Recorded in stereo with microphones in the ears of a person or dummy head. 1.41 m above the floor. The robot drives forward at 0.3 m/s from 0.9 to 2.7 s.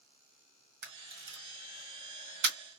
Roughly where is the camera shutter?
Right.